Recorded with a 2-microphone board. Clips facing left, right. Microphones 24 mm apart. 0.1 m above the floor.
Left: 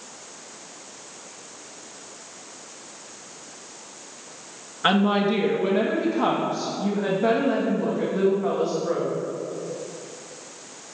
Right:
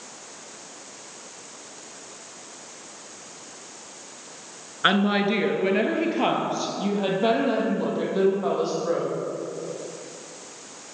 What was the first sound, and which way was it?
A woman speaking, 20° right (ahead or behind).